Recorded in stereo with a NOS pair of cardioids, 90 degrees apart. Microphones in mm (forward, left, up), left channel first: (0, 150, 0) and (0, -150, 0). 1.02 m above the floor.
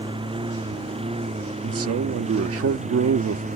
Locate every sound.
0.0 s a lawn mower: 15° right; by 3.6 s 25° right
1.6 s a man speaking: 50° right